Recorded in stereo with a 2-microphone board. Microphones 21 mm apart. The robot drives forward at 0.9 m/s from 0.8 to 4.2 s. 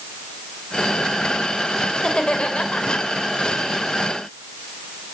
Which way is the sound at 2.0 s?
50° left (ahead or behind).